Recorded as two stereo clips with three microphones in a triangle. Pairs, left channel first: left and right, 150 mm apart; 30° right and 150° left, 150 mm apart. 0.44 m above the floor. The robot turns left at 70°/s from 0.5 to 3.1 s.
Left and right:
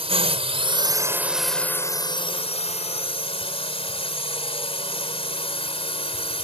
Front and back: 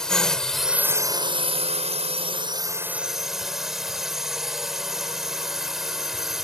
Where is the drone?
115° right; by 6.4 s 65° left.